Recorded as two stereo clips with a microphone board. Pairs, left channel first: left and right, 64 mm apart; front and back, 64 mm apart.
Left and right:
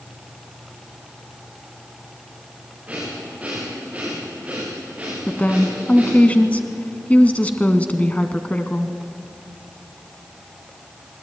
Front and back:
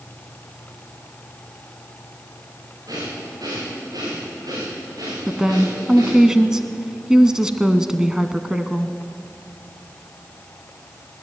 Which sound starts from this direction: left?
A woman speaking, at 5.3 s.